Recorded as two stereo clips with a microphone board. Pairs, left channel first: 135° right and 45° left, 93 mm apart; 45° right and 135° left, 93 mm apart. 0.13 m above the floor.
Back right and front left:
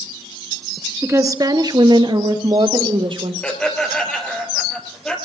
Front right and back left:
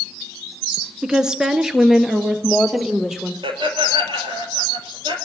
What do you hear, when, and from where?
1.0 s a woman speaking: 60° left, 1.3 m; by 3.3 s 50° left, 3.5 m
3.4 s laughter: 145° left, 4 m